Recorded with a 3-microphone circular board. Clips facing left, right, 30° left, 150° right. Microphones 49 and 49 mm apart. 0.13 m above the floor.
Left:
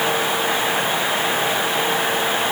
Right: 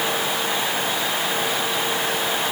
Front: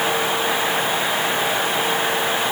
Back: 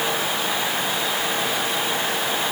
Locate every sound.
Only background noise.